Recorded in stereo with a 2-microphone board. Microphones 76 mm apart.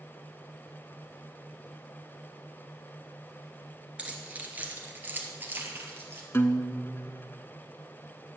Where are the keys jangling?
15° right (ahead or behind), 1.6 m; by 6.2 s 30° right (ahead or behind), 2.5 m.